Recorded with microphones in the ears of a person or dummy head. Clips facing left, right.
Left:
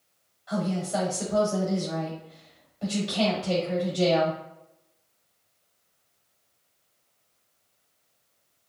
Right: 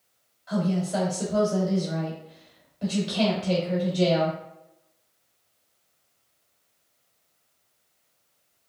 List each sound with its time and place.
0.5 s a woman speaking: 20° right (ahead or behind), 1.6 m